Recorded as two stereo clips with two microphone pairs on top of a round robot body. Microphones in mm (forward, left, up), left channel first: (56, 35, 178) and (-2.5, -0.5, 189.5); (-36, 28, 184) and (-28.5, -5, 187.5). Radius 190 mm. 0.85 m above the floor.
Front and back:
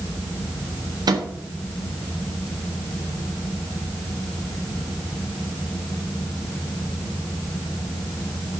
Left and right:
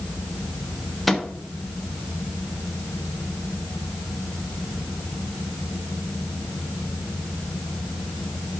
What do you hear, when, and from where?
1.1 s a microwave: 170° right, 1.8 m